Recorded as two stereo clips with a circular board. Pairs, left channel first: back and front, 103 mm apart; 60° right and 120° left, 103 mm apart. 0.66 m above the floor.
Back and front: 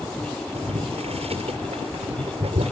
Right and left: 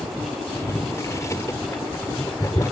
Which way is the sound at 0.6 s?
Straight ahead.